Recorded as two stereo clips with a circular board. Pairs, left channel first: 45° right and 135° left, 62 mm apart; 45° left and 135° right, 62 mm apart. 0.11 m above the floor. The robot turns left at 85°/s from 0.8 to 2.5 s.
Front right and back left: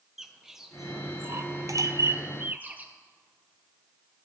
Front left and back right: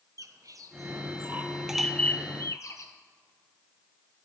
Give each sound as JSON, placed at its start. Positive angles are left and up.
{"t": 0.2, "sound": "a bird", "azimuth_deg": -140, "distance_m": 0.6}